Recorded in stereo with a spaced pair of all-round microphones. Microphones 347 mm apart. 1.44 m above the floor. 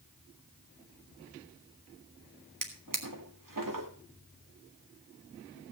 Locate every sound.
2.6 s a drawer: 65° right (ahead or behind), 1.8 m